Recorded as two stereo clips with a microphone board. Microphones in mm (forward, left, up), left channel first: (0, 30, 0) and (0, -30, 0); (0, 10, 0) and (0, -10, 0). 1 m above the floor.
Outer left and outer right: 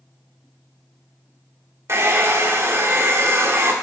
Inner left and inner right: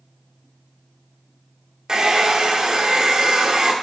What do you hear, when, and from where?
1.9 s a hair dryer: 45° right (ahead or behind), 1.6 m